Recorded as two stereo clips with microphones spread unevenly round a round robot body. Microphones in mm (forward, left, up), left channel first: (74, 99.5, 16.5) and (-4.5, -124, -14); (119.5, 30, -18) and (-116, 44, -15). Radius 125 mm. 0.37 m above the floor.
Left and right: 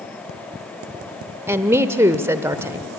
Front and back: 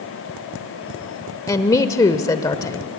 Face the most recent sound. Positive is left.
turn(degrees=-60)